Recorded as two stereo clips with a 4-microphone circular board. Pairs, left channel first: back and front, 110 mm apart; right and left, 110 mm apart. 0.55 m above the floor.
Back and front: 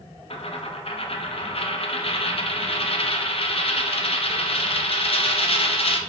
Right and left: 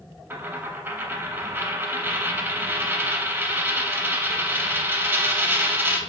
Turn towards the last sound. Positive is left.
turn(degrees=160)